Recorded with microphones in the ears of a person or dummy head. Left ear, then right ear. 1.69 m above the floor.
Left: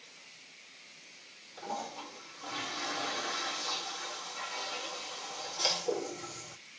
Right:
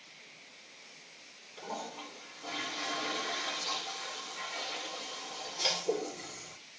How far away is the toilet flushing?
About 2 m.